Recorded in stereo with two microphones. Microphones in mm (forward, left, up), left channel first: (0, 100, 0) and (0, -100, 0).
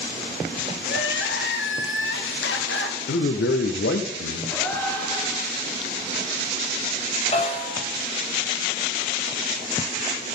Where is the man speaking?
80° left, 0.7 m.